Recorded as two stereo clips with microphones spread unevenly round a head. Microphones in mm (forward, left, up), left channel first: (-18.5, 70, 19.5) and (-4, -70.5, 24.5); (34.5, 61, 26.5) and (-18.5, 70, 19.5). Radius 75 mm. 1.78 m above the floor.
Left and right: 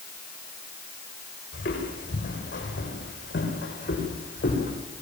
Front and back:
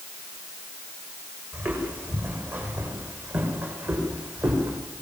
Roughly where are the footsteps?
Behind left.